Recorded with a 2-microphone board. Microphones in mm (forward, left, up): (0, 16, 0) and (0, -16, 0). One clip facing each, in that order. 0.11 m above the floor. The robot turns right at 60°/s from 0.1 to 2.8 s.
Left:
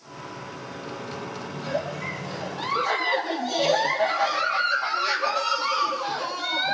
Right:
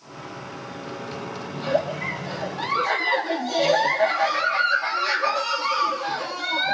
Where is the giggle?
65° right, 1.9 m; by 6.7 s 10° left, 1.9 m.